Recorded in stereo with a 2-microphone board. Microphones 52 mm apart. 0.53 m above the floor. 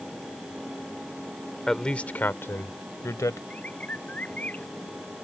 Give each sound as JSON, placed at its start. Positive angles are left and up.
{"t": 1.7, "sound": "a man speaking", "side_deg": 10}
{"t": 3.5, "sound": "a bird", "side_deg": 25}